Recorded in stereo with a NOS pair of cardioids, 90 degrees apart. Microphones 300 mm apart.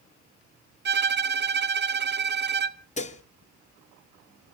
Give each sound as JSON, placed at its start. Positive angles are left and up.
{"t": 0.8, "sound": "a violin", "azimuth_deg": -35, "distance_m": 0.9}
{"t": 3.0, "sound": "dishes clattering", "azimuth_deg": 25, "distance_m": 1.5}